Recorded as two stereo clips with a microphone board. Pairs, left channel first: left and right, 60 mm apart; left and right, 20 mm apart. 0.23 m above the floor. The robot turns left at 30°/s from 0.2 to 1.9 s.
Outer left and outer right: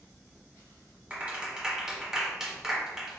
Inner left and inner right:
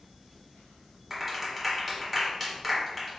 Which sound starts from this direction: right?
A clap, at 1.1 s.